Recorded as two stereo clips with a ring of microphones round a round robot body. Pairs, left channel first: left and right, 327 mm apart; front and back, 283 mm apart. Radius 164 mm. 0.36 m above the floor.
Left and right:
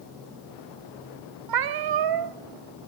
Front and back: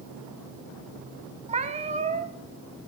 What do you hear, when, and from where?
1.5 s a cat meowing: 110° right, 1.0 m